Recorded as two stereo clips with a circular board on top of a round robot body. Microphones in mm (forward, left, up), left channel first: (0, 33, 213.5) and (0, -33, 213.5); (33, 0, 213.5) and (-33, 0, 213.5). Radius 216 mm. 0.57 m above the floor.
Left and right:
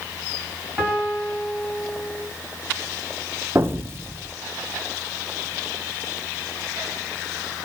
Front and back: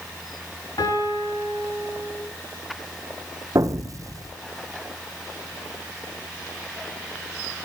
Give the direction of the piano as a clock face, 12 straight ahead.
12 o'clock.